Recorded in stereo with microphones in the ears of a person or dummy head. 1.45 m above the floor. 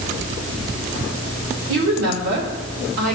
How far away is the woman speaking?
About 2 m.